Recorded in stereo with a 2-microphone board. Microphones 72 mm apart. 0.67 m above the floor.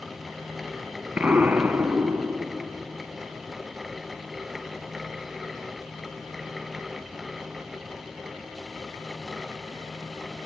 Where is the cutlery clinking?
I don't hear cutlery clinking.